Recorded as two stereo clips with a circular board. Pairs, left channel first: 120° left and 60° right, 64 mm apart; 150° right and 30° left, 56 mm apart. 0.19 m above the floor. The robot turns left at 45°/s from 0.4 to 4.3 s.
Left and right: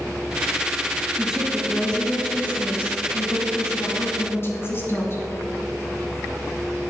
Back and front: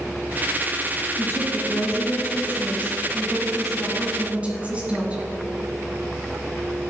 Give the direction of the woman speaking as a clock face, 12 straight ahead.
4 o'clock.